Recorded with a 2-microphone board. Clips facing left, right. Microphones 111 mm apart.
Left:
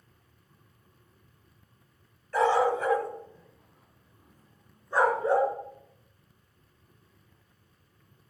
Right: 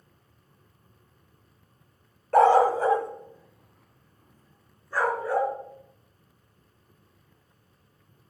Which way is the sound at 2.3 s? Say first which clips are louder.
Right 6 dB; 55° right (ahead or behind).